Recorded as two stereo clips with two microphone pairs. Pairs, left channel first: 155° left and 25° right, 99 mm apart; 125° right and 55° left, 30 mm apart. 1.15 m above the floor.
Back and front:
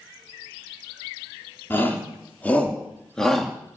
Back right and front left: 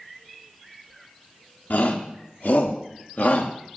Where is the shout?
135° right, 3.5 m; by 3.5 s 115° right, 2.5 m.